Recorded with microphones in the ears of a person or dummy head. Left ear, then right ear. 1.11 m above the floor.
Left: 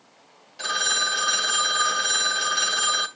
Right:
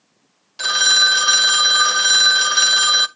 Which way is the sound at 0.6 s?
30° right (ahead or behind).